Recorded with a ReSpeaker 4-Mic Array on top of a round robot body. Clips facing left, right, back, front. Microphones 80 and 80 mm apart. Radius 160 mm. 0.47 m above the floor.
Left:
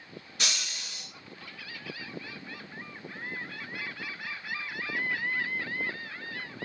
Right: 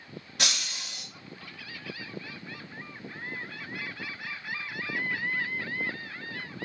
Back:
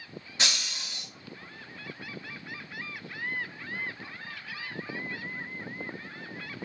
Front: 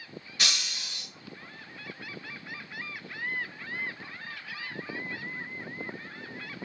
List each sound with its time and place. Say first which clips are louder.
0.4 s breaking glass: right 2 dB, back 1 dB; 115° right, 1.9 m